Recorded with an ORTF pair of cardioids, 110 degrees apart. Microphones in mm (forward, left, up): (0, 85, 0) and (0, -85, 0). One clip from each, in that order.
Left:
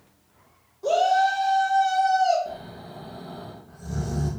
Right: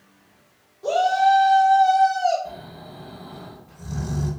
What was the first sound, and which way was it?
A shout, 5° left.